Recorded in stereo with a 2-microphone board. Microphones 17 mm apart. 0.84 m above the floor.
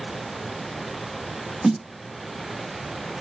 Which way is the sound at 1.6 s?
15° right (ahead or behind).